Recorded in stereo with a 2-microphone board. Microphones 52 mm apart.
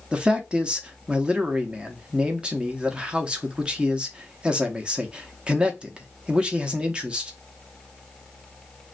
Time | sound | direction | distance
0.1 | a man speaking | 20° right (ahead or behind) | 0.6 m